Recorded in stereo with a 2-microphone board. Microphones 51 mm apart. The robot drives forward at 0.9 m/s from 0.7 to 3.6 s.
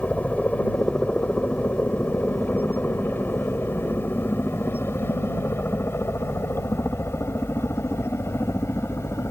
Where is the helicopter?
30° left (ahead or behind); by 9.3 s 60° left (ahead or behind).